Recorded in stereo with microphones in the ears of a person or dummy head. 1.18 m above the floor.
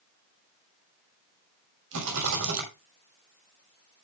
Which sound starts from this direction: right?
A rattle, at 1.9 s.